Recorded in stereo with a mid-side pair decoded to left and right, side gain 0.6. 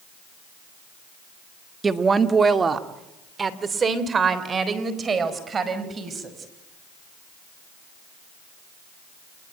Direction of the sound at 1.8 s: 25° right.